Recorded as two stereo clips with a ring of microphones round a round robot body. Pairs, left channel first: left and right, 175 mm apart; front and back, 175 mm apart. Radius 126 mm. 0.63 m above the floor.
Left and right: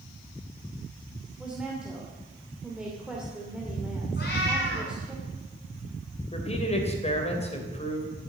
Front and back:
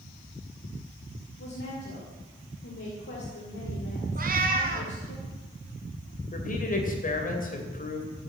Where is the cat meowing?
145° left, 2.5 m.